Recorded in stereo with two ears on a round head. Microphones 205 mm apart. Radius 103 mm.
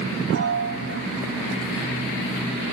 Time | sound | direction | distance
0.3 | a piano | 55° right (ahead or behind) | 4.5 m